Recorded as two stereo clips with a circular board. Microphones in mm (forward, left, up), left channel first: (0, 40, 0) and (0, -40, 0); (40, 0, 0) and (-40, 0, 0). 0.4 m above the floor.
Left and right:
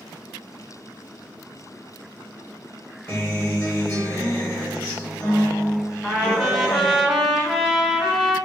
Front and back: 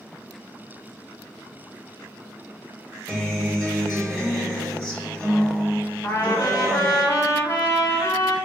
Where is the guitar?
85° left, 1.3 m.